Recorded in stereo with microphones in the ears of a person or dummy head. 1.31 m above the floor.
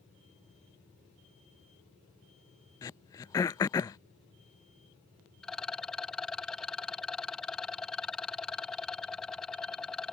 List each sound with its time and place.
2.8 s throat clearing: 15° left (ahead or behind)
5.4 s a rattle: centre (ahead or behind)